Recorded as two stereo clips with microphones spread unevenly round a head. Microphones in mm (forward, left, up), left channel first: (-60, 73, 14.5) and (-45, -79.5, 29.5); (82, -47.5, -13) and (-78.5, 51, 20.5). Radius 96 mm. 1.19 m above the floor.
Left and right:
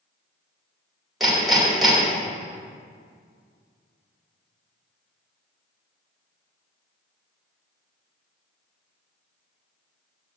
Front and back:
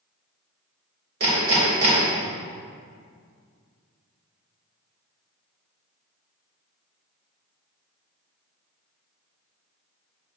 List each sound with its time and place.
1.2 s hammering: 175° right, 3 m